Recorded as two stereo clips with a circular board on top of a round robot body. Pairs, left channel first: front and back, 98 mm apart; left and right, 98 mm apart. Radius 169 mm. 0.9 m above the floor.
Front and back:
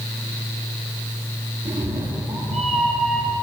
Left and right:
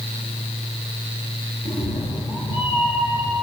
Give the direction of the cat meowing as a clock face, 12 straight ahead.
8 o'clock.